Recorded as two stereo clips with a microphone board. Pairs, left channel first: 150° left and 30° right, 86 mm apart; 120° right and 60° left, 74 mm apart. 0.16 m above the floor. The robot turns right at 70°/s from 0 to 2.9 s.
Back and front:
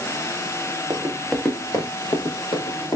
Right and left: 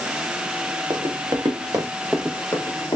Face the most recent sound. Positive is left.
turn(degrees=-155)